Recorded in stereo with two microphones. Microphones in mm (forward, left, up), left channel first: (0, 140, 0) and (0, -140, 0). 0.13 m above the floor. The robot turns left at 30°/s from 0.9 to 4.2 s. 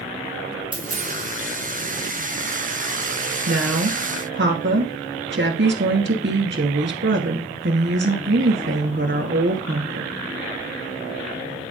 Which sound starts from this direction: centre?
A dropped coin, at 0.7 s.